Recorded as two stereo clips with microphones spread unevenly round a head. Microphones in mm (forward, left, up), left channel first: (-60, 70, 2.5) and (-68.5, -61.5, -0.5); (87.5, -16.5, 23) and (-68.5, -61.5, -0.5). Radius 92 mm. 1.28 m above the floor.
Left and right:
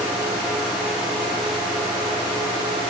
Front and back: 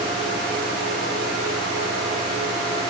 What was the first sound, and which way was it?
Only background noise.